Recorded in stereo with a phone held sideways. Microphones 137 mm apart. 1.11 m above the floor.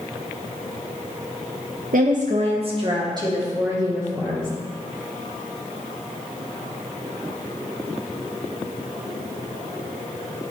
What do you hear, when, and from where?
1.9 s a woman speaking: 80° right, 0.6 m; by 4.5 s 20° right (ahead or behind), 3 m